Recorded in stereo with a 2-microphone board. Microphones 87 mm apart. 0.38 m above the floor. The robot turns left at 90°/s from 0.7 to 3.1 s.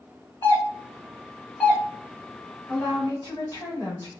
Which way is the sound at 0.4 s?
30° left (ahead or behind).